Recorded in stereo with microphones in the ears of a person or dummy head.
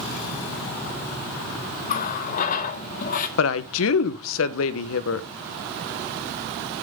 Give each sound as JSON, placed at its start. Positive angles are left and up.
{"t": 1.9, "sound": "a running tap", "side_deg": 45, "distance_m": 1.4}
{"t": 3.4, "sound": "a woman speaking", "side_deg": 75, "distance_m": 0.9}